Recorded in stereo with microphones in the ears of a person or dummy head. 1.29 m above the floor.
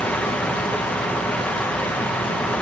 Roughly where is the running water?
Centre.